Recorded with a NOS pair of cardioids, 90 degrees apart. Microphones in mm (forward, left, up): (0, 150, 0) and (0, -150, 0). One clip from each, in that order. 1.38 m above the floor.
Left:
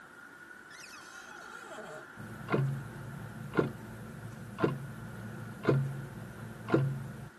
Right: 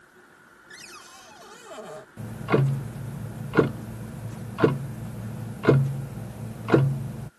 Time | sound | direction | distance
0.7 | a cupboard door | 45° right | ?
2.2 | ticking | 40° right | ?